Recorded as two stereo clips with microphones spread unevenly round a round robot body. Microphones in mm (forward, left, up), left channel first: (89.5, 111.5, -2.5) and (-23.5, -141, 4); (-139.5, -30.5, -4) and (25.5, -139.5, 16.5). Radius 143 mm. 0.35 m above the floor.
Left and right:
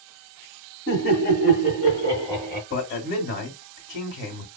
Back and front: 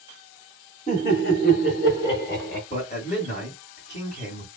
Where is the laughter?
100° left, 1.3 m; by 2.6 s 155° left, 1.6 m.